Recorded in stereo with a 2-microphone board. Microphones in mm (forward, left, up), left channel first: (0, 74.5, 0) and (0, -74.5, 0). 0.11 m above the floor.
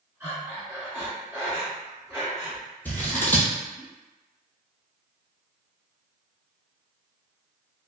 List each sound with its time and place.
0.2 s breathing: 15° right (ahead or behind), 1.7 m
2.9 s scissors: 10° left (ahead or behind), 0.7 m